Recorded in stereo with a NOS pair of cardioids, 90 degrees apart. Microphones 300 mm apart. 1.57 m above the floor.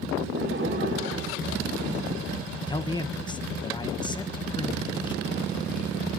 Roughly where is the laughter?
Ahead right.